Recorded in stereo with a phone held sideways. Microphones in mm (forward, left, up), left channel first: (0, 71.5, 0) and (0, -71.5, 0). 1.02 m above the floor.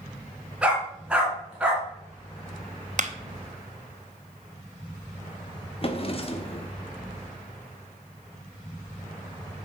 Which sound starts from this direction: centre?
A dog barking, at 0.6 s.